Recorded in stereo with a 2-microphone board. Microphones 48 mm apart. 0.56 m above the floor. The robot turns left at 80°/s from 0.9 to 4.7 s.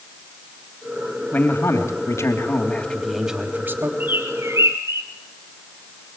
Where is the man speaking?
150° left, 3 m; by 3.9 s 60° right, 3 m.